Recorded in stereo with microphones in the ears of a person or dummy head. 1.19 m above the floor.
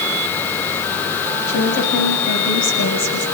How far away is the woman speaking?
About 8 m.